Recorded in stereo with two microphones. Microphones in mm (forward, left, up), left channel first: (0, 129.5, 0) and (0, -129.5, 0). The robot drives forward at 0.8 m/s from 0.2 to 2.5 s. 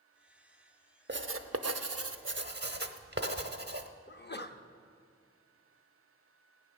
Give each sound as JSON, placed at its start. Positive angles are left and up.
{"t": 1.1, "sound": "writing", "side_deg": -45, "distance_m": 0.8}
{"t": 4.1, "sound": "a sneeze", "side_deg": 40, "distance_m": 0.7}